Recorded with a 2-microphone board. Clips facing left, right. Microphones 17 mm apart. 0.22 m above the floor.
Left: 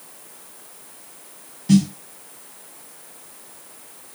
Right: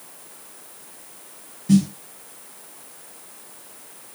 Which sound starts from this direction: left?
A snare drum, at 1.7 s.